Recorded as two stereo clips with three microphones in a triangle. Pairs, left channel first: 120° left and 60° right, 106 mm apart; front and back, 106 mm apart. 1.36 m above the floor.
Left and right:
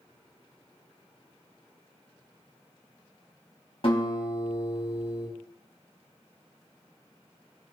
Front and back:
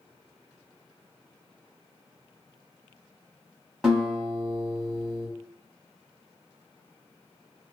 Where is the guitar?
95° left, 0.9 m.